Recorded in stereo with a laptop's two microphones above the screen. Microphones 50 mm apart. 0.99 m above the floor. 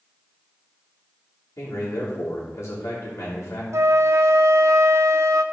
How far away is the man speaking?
About 3 m.